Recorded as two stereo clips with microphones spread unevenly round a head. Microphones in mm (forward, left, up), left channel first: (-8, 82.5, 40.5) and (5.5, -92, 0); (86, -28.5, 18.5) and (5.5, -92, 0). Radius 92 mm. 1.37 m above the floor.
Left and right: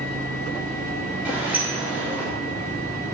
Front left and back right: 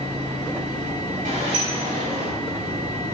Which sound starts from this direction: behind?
A sliding door, at 1.2 s.